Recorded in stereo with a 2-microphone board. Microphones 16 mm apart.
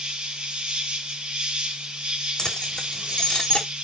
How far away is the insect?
About 2 m.